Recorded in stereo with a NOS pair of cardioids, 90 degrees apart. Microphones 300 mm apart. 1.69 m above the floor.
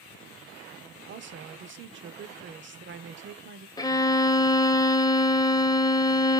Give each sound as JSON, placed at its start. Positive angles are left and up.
{"t": 1.1, "sound": "a woman speaking", "azimuth_deg": -40, "distance_m": 0.7}
{"t": 3.8, "sound": "a violin", "azimuth_deg": 15, "distance_m": 0.6}